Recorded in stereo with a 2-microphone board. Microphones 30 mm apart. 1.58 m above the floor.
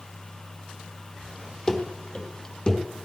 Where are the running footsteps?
15° left (ahead or behind), 2.5 m; by 2.8 s 25° left (ahead or behind), 3.5 m.